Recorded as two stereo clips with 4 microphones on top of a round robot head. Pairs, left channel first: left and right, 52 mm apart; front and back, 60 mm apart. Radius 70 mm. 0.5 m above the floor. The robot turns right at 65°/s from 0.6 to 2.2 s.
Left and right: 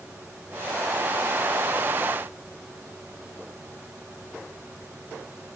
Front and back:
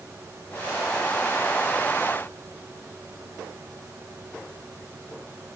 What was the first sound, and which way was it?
Only background noise.